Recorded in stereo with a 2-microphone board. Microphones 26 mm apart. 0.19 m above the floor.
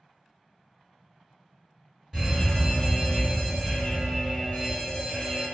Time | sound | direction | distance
2.1 | a fire alarm | 15° right (ahead or behind) | 2.0 m